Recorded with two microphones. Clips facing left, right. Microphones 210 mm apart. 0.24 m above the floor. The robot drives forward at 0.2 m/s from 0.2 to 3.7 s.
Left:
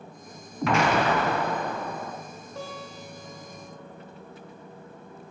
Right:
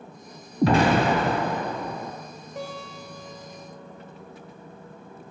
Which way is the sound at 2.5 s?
20° right (ahead or behind).